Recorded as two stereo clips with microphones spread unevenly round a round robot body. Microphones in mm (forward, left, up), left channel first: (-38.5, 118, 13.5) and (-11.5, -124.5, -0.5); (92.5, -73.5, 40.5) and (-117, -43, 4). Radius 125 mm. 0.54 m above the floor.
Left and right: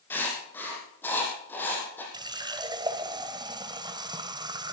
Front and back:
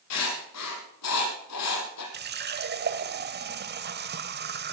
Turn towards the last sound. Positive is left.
turn(degrees=-155)